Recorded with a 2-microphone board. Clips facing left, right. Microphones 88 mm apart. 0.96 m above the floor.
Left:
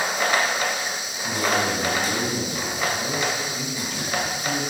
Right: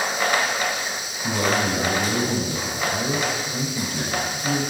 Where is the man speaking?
40° right (ahead or behind), 6.5 m.